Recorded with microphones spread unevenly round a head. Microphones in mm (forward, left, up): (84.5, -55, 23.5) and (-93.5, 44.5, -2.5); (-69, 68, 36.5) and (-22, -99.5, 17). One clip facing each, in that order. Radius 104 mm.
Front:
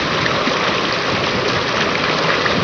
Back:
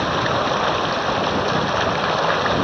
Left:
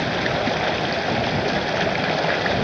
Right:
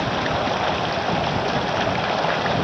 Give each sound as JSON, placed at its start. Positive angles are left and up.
{"t": 0.0, "sound": "running water", "azimuth_deg": 30}